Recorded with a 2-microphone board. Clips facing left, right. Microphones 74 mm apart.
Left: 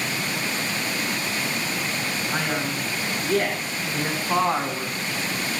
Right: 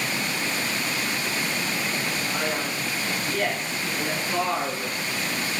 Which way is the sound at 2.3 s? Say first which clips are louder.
Left 1 dB; 65° left (ahead or behind).